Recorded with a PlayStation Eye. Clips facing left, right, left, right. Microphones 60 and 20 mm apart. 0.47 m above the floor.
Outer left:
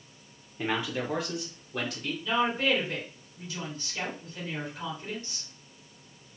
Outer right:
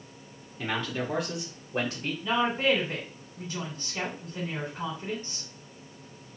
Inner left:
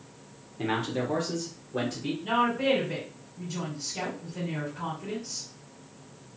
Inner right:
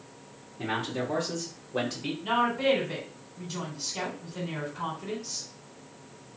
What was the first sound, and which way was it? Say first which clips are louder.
A man speaking: outer left 1 dB, inner left 2 dB; 20° left (ahead or behind).